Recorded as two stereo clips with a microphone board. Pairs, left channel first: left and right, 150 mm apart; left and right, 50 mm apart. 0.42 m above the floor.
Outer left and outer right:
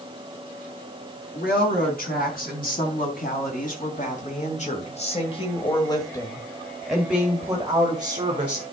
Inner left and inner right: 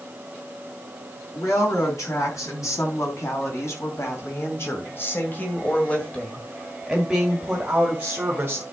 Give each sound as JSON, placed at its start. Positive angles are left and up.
{"t": 1.4, "sound": "a woman speaking", "side_deg": 70, "distance_m": 4.5}